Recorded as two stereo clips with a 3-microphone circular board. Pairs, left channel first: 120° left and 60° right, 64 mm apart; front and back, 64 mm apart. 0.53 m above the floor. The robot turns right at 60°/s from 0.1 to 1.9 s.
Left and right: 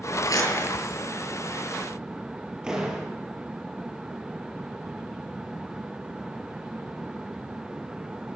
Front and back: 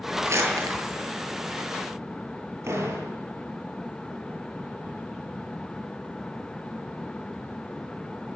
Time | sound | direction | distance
0.2 | crumpling | 135° left | 7.5 m
2.6 | a door slam | 140° right | 8 m